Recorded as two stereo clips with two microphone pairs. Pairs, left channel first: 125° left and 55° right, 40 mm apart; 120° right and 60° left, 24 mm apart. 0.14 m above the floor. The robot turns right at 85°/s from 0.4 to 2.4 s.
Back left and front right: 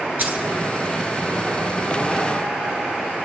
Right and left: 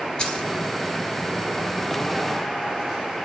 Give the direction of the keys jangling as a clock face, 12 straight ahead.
3 o'clock.